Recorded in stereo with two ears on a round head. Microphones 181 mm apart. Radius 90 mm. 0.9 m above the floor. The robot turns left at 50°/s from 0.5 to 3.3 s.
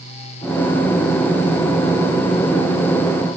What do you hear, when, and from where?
Only background noise.